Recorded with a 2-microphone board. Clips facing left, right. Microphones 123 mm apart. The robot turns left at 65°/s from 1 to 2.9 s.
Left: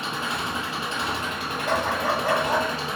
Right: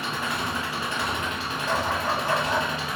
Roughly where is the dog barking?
Behind left.